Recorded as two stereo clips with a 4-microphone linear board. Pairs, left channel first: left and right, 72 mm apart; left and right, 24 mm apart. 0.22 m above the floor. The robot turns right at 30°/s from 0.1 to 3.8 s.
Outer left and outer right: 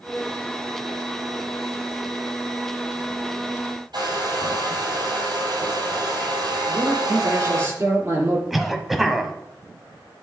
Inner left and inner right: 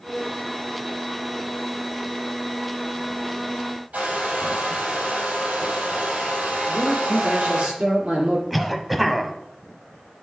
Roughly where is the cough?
Centre.